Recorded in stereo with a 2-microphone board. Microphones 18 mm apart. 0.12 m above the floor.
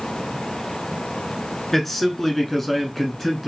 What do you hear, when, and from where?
1.7 s a man speaking: 20° left (ahead or behind), 1.2 m; by 3.5 s 5° left (ahead or behind), 1.1 m